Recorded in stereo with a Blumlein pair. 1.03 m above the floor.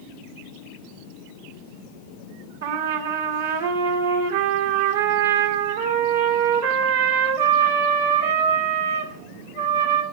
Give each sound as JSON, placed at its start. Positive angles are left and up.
{"t": 2.6, "sound": "a trumpet", "azimuth_deg": -65, "distance_m": 2.0}